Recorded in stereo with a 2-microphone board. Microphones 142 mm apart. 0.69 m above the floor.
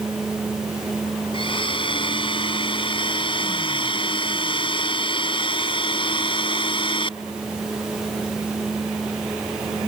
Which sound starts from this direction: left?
A blender, at 1.3 s.